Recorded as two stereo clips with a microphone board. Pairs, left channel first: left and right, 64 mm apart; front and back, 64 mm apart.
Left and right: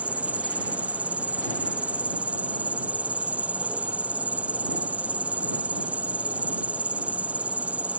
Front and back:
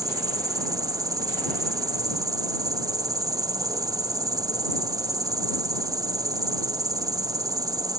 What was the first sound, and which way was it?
An insect, 155° right.